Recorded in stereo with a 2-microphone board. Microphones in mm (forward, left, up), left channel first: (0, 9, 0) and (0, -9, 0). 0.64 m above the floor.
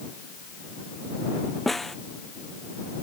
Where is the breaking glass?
No breaking glass in this recording.